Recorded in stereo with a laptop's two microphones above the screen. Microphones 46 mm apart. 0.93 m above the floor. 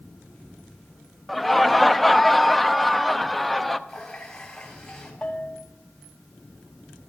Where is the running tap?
10° left (ahead or behind), 4.5 m.